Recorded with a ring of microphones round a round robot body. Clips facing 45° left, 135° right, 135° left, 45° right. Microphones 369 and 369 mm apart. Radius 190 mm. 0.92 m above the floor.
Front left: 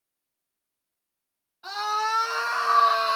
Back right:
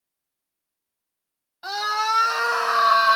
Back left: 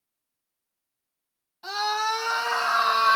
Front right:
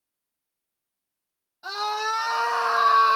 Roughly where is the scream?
Behind right.